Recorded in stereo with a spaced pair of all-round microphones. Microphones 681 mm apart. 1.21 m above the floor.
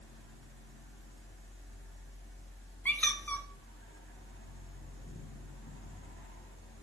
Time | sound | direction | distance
0.0 | a fan | 15° left (ahead or behind) | 1.6 m
2.9 | a squeak | 5° left (ahead or behind) | 0.8 m